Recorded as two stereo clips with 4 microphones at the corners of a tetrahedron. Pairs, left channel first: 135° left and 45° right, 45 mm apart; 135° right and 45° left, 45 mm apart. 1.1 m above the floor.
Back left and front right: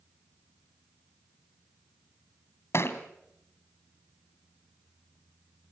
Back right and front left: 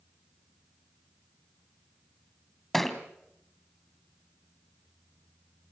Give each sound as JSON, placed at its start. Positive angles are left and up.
{"t": 2.7, "sound": "a thud", "azimuth_deg": 140, "distance_m": 2.0}